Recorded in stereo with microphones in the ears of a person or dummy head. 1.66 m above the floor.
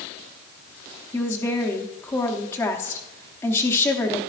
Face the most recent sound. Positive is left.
turn(degrees=15)  # may be behind; listen again after turning